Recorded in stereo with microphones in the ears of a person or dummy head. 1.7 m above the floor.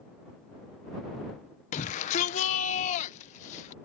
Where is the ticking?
I don't hear ticking.